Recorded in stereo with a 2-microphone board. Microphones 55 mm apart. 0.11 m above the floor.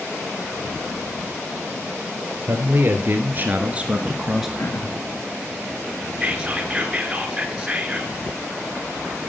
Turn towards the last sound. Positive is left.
turn(degrees=-10)  # may be behind; listen again after turning